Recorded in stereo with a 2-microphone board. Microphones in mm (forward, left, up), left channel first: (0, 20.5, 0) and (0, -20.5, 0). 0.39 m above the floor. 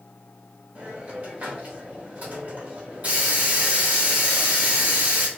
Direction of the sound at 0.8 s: 40° right (ahead or behind).